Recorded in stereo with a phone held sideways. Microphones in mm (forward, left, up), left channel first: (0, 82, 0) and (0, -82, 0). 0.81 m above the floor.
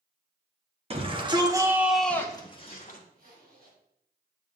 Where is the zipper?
70° right (ahead or behind), 3 m.